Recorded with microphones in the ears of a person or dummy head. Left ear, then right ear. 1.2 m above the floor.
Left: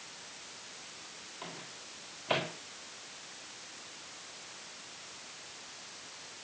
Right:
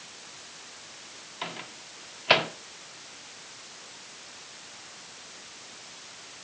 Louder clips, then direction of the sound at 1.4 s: Right 10 dB; 70° right (ahead or behind).